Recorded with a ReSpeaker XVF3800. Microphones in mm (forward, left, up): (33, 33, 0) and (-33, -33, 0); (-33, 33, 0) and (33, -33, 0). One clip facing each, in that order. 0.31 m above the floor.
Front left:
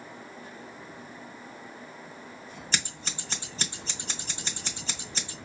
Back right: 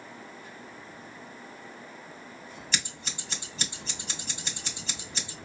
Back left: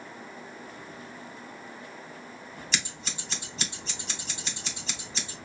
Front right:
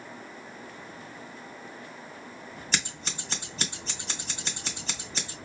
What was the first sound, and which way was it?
Scissors, straight ahead.